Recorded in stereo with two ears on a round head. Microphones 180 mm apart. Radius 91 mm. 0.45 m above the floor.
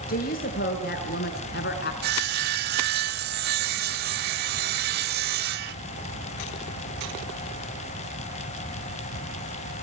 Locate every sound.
0.1 s a woman speaking: 40° left (ahead or behind), 6 m; by 1.9 s 45° left (ahead or behind), 4.5 m
2.0 s sawing: 45° right (ahead or behind), 0.9 m